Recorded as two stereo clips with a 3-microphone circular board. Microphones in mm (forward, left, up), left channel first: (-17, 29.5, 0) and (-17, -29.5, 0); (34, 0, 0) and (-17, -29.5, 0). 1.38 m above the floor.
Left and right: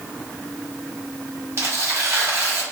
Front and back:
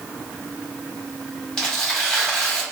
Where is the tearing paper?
50° right, 1.4 m.